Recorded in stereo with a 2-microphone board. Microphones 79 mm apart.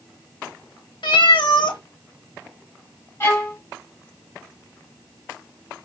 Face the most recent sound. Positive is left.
turn(degrees=30)  # may be behind; listen again after turning